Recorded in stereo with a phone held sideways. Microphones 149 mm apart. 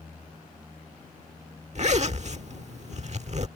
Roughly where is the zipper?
Right.